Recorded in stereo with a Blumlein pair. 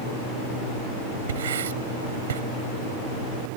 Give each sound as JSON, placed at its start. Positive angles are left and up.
{"t": 1.3, "sound": "writing", "azimuth_deg": -60}